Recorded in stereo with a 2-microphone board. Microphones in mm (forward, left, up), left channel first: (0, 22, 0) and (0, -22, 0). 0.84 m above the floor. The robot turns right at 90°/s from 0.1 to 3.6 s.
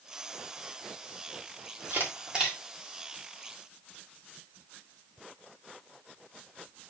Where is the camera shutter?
60° right (ahead or behind), 3 m; by 2.6 s centre (ahead or behind), 3 m.